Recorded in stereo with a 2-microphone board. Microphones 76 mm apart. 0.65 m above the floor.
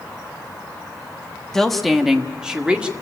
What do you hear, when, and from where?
1.5 s a woman speaking: 5° left (ahead or behind), 1.1 m; by 2.9 s 15° right (ahead or behind), 1.9 m